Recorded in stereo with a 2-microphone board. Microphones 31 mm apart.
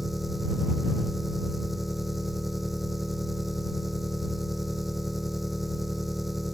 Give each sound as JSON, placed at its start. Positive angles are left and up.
{"t": 0.0, "sound": "an engine running", "side_deg": -5}